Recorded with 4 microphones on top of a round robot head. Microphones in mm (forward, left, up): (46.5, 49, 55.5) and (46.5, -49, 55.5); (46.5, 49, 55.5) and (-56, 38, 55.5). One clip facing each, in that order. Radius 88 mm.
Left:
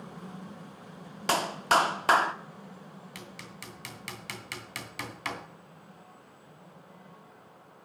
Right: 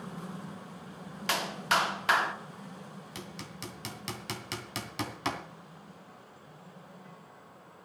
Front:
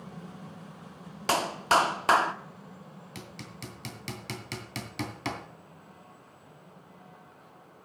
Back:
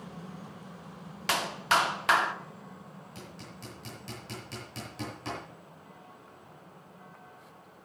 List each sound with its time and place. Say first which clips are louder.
1.3 s a clap: left 5 dB, front 3 dB; 45° left, 1.3 m
3.1 s hammering: right 4 dB, front 4 dB; 25° right, 2.5 m